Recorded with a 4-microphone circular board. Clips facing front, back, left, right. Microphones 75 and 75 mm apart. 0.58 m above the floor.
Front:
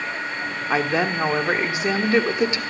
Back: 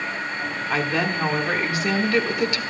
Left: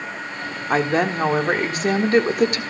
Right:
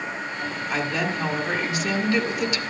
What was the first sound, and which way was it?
A woman speaking, 60° left.